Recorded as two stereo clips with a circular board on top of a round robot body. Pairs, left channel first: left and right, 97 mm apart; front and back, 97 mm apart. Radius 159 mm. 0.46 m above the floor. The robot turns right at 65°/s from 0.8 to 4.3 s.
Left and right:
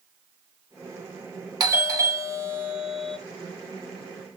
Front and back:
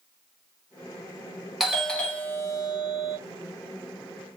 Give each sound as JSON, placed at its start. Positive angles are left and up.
{"t": 1.6, "sound": "a doorbell", "azimuth_deg": -95, "distance_m": 1.5}